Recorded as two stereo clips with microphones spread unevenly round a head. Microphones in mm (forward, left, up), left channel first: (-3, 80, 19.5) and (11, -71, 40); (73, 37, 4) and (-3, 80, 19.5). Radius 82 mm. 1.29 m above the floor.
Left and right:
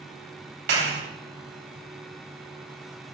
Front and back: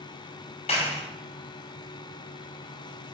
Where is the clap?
70° right, 5 m.